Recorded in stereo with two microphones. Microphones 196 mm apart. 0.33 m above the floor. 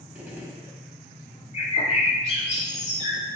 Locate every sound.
0.1 s a gunshot: 10° right (ahead or behind), 0.7 m
1.5 s a bird: 35° left (ahead or behind), 0.9 m